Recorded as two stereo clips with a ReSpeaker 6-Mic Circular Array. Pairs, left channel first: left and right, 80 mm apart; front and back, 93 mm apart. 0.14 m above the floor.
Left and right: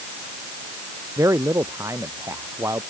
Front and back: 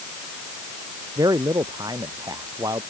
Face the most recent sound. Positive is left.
turn(degrees=-135)